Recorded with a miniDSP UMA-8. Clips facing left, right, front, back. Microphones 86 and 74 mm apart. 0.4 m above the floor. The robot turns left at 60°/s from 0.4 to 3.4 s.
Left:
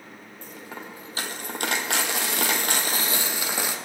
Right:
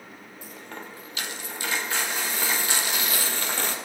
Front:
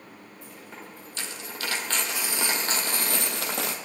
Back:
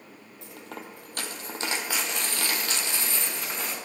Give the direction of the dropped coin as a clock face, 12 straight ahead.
6 o'clock.